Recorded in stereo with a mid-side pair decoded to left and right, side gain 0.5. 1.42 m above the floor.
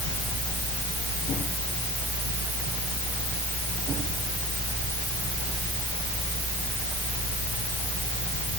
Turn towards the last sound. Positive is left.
No sound to turn to.